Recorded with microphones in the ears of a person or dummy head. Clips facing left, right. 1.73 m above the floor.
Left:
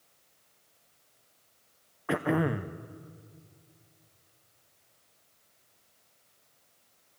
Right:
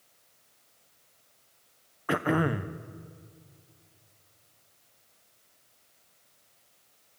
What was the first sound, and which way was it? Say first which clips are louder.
Throat clearing: right 1 dB; centre (ahead or behind).